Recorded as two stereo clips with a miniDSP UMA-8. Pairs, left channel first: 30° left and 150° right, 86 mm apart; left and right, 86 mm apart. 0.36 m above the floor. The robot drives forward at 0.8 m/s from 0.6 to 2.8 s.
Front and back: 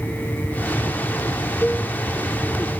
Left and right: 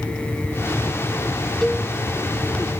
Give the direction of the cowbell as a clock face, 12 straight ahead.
11 o'clock.